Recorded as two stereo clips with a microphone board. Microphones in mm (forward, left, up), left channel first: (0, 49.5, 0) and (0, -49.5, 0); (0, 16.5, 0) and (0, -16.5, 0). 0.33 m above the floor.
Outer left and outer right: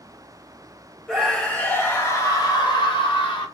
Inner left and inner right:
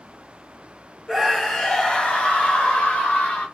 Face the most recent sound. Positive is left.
turn(degrees=60)  # may be behind; listen again after turning